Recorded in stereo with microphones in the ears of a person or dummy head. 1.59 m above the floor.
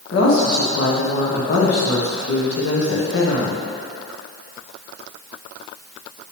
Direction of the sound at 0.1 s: 80° left.